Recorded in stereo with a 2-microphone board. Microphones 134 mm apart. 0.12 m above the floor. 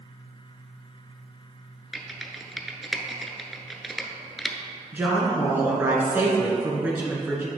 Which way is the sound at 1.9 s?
Centre (ahead or behind).